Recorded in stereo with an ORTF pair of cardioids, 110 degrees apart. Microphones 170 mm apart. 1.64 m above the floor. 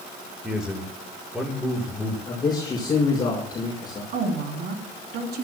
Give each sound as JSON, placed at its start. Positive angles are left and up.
{"t": 0.4, "sound": "a man speaking", "azimuth_deg": -5, "distance_m": 5.5}
{"t": 2.3, "sound": "a man speaking", "azimuth_deg": 25, "distance_m": 6.0}
{"t": 4.1, "sound": "a woman speaking", "azimuth_deg": -65, "distance_m": 3.5}